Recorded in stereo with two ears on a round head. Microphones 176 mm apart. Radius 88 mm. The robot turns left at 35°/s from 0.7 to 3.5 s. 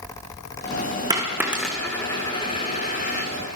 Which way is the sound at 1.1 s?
20° right (ahead or behind).